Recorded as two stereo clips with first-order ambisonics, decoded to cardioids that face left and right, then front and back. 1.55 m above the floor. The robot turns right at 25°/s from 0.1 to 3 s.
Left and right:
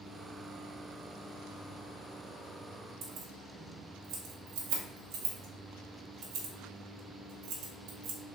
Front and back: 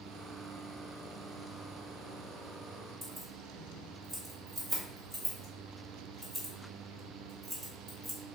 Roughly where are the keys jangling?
Right.